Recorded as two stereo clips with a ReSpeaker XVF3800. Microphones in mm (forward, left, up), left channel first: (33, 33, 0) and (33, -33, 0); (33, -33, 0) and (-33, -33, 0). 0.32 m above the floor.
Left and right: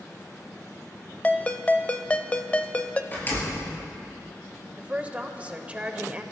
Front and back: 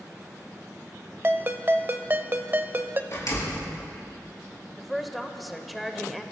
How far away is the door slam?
About 4.5 m.